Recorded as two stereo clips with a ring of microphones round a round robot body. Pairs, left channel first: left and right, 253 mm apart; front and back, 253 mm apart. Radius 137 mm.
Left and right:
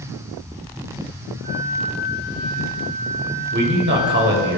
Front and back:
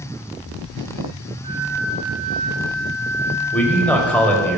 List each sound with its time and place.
1.4 s a flute: 120° left, 2.5 m
3.5 s a man speaking: 85° right, 1.6 m